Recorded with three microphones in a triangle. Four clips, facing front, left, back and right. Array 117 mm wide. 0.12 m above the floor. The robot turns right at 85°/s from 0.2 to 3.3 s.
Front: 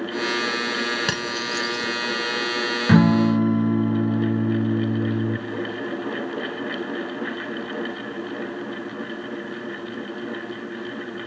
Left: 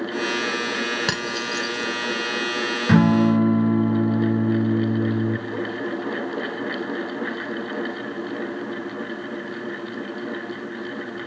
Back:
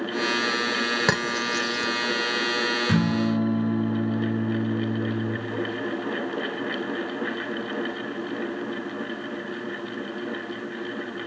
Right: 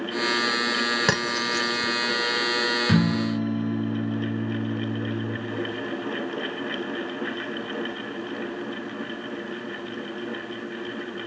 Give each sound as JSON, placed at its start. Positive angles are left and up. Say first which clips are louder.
{"t": 1.1, "sound": "cutlery clinking", "louder": "right 1 dB, back 2 dB", "azimuth_deg": -150, "distance_m": 0.7}
{"t": 2.9, "sound": "a guitar", "louder": "left 9 dB, front 9 dB", "azimuth_deg": 35, "distance_m": 0.6}